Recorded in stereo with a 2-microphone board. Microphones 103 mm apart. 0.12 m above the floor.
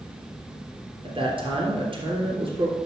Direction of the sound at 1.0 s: 55° right (ahead or behind).